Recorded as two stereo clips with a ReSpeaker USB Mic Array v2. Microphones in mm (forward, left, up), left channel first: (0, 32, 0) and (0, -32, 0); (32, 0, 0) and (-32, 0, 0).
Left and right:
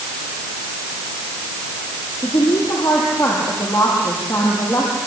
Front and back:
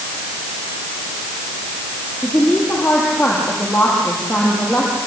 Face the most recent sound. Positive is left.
turn(degrees=80)